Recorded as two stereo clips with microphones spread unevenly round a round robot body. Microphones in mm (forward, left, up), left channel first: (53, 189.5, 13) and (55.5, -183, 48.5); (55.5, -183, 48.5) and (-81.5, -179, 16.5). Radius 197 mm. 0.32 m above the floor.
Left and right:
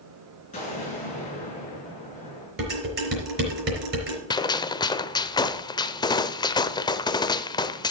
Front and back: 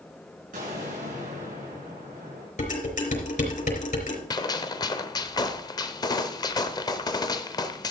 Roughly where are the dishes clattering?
Ahead right.